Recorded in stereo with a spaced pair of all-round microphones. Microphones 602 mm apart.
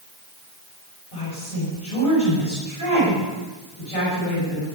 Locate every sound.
1.1 s a woman speaking: 85° left, 7.5 m